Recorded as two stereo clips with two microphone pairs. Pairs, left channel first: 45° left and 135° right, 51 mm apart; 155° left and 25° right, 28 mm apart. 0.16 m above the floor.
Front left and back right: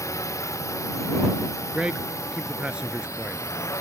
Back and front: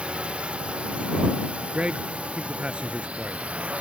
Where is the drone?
30° left; by 3.8 s 25° left.